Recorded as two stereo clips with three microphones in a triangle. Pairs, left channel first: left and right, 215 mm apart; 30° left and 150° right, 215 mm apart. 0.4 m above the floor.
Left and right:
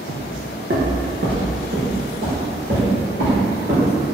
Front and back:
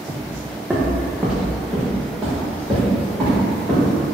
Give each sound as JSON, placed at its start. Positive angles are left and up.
{"t": 0.1, "sound": "footsteps", "azimuth_deg": -75, "distance_m": 1.0}